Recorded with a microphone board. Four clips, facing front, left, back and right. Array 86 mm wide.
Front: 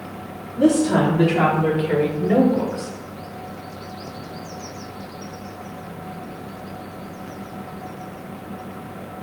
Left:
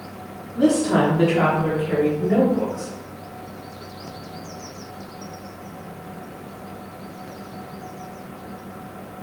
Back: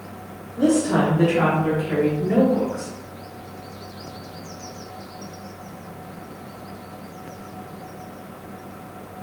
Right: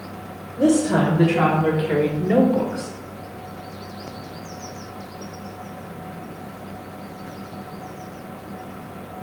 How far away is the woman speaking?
About 1.2 m.